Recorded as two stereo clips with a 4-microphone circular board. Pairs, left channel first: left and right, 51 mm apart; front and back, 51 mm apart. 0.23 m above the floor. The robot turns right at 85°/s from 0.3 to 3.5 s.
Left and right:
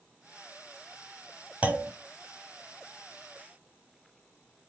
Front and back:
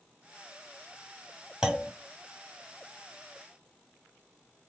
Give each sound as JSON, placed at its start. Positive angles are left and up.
{"t": 1.6, "sound": "a clunk", "azimuth_deg": -115, "distance_m": 0.7}